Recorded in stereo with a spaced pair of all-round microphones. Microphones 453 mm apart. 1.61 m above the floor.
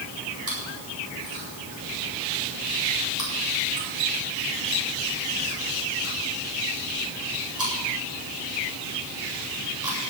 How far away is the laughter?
I don't hear laughter.